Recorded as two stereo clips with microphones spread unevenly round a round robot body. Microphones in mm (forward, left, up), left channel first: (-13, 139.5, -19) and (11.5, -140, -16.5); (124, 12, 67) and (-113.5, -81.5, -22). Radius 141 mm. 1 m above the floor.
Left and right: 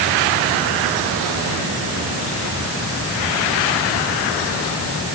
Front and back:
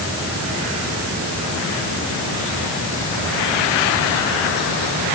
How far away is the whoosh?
I don't hear a whoosh.